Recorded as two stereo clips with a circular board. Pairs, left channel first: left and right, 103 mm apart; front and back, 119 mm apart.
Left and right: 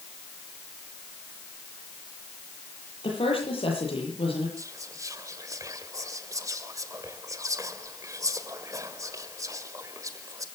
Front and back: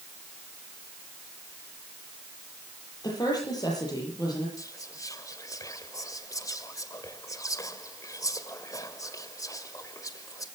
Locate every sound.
3.0 s a woman speaking: 60° left, 9.5 m
4.6 s whispering: 45° right, 1.7 m